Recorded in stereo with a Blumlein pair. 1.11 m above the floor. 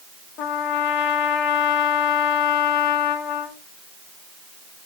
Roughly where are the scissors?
No scissors in this recording.